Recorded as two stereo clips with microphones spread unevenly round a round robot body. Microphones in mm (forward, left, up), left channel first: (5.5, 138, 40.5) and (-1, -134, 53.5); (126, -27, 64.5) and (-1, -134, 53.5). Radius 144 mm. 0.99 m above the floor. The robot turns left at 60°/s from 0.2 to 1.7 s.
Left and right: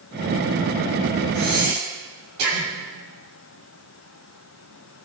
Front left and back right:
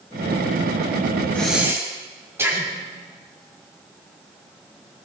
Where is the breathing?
45° right, 7.5 m; by 2.7 s 65° right, 7.5 m.